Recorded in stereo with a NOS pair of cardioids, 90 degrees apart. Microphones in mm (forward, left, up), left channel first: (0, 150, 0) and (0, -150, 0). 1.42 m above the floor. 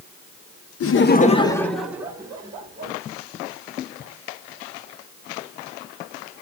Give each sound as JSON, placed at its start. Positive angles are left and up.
{"t": 0.8, "sound": "laughter", "azimuth_deg": 50, "distance_m": 0.9}